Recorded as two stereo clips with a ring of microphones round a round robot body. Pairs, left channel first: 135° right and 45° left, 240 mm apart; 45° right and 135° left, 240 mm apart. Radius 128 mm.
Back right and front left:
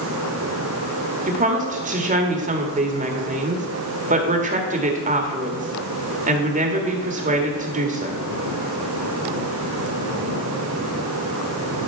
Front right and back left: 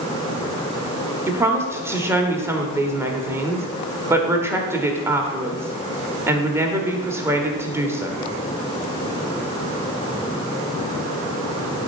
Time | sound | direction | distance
1.3 | a woman speaking | 65° left | 1.5 m